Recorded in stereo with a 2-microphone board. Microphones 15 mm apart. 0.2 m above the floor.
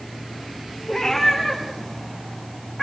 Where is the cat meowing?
35° left (ahead or behind), 7 m; by 2.8 s 20° left (ahead or behind), 7 m.